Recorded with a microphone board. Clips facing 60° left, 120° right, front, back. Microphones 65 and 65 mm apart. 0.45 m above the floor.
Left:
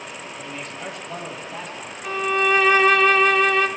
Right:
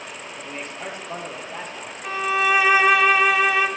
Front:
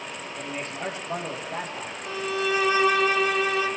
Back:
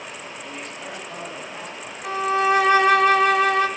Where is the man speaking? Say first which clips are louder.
Right 1 dB, front 2 dB; 55° right, 10 m.